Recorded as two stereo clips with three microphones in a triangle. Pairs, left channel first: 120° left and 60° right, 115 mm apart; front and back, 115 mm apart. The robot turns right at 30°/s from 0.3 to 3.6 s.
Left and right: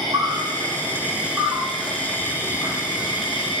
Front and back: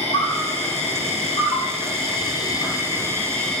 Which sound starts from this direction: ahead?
An insect, at 0.0 s.